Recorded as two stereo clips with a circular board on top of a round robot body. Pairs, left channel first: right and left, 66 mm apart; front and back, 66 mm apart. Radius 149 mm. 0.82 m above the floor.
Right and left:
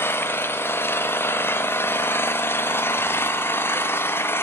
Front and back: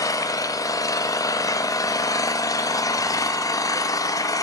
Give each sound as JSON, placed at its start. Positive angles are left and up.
{"t": 0.0, "sound": "an engine running", "azimuth_deg": -30, "distance_m": 0.7}